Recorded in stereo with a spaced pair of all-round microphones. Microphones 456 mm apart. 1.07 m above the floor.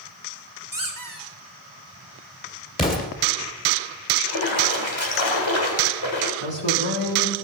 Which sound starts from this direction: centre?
An explosion, at 2.8 s.